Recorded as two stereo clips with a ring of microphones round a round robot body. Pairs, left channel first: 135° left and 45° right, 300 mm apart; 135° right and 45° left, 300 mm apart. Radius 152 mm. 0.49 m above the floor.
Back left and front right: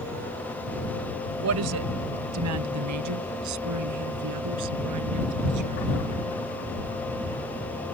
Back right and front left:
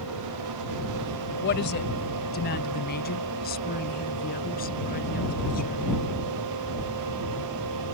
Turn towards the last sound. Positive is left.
turn(degrees=-75)